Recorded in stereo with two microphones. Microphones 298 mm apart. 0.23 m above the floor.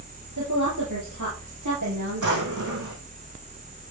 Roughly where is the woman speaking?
Right.